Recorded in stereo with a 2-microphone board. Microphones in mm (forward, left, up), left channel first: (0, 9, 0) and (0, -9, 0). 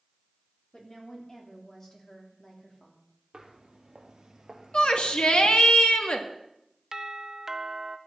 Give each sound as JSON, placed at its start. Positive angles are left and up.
{"t": 0.7, "sound": "a woman speaking", "side_deg": 40, "distance_m": 3.5}
{"t": 3.3, "sound": "footsteps", "side_deg": -45, "distance_m": 2.5}
{"t": 4.7, "sound": "a shout", "side_deg": 75, "distance_m": 2.0}
{"t": 6.9, "sound": "a doorbell", "side_deg": -25, "distance_m": 0.9}